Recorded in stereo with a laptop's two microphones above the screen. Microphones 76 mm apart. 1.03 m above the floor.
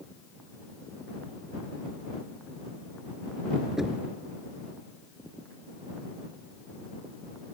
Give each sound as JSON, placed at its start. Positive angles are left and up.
{"t": 3.8, "sound": "knocking", "side_deg": -5}